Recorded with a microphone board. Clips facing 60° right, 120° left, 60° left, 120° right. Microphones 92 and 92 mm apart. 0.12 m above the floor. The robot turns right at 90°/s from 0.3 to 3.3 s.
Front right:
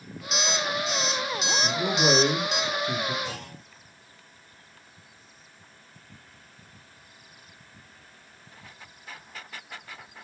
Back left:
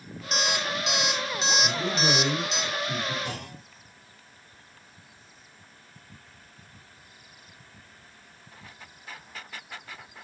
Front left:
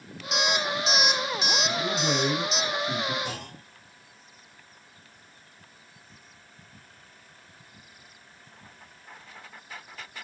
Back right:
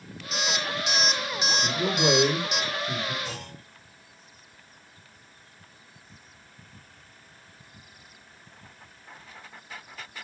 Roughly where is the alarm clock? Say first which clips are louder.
Front right 1 dB, front left 3 dB; left.